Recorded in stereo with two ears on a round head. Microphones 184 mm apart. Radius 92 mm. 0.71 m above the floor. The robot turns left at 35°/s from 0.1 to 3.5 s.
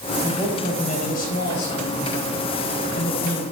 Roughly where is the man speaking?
Behind.